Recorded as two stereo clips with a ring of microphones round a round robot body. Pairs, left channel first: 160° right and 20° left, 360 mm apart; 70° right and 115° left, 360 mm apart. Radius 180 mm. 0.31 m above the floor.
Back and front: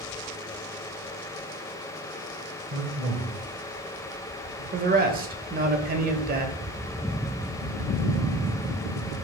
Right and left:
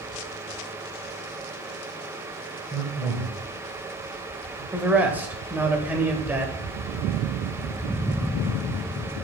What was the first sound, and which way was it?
A man speaking, 40° left.